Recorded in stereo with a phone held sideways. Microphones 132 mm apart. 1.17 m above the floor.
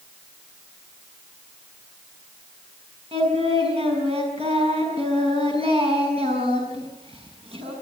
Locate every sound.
3.1 s singing: 45° right (ahead or behind), 6.5 m